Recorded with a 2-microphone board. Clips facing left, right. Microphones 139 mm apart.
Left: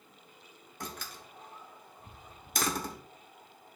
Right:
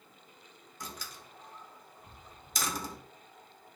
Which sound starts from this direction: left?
A door slam, at 0.8 s.